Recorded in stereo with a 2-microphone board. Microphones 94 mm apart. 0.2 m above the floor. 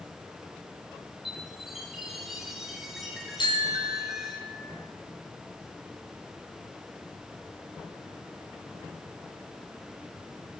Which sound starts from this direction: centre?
A chime, at 1.2 s.